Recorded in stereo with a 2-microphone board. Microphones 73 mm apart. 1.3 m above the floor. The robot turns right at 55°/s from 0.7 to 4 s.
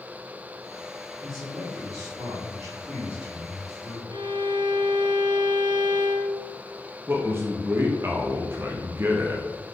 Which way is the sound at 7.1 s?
35° right (ahead or behind).